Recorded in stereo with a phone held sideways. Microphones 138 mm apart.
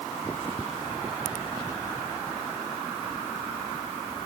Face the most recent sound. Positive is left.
No sound to turn to.